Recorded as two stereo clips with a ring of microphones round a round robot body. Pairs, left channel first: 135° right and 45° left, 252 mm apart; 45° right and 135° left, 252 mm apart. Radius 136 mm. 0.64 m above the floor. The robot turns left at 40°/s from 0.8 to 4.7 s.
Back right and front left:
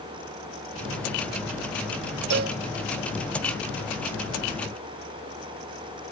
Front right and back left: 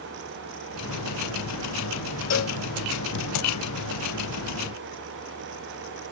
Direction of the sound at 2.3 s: 5° right.